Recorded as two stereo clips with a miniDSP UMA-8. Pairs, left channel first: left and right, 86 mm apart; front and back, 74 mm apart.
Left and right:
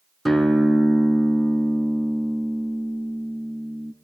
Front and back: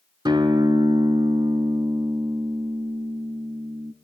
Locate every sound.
0.2 s a guitar: straight behind, 0.8 m